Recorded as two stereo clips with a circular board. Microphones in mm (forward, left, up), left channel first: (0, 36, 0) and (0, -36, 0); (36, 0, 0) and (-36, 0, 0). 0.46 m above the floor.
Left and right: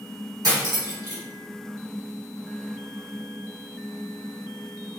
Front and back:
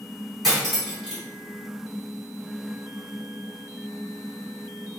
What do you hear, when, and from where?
0.4 s cutlery clinking: 90° right, 1.3 m